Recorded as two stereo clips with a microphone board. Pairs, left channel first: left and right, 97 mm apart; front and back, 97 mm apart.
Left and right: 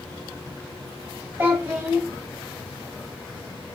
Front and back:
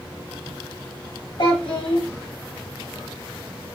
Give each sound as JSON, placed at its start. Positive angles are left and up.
{"t": 1.4, "sound": "a child speaking", "azimuth_deg": -25, "distance_m": 1.5}